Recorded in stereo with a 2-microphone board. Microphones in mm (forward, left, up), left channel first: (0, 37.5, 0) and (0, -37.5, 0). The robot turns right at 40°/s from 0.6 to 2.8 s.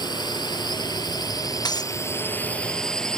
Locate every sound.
0.0 s a drone: 85° left; by 3.2 s 170° left
1.6 s breaking glass: 65° left (ahead or behind); by 2.0 s 55° left (ahead or behind)